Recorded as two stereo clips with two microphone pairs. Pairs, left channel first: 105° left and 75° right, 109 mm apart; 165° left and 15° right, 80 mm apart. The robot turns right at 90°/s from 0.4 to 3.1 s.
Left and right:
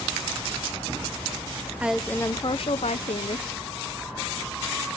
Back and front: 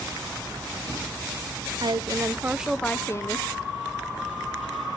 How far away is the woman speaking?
About 0.6 m.